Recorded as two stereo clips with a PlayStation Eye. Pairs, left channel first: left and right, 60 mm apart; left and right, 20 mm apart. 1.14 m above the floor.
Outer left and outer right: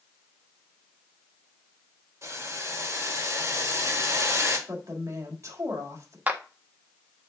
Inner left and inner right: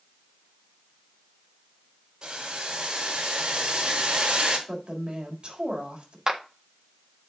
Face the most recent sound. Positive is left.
turn(degrees=-25)  # may be behind; listen again after turning